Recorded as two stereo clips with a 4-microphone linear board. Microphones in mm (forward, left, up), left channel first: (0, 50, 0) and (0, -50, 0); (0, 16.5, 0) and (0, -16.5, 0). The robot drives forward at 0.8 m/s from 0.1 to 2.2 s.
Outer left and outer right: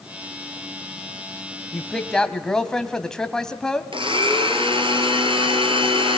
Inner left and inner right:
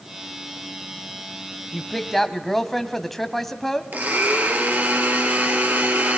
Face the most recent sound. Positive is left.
turn(degrees=-60)  # may be behind; listen again after turning